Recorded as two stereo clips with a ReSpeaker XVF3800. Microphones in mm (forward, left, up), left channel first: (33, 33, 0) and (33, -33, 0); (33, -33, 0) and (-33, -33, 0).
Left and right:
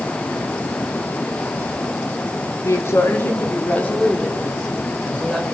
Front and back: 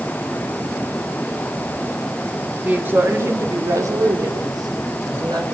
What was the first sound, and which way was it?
A woman speaking, 120° left.